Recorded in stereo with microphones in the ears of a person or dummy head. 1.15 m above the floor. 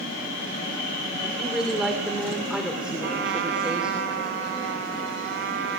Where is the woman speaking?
10° right (ahead or behind), 3 m.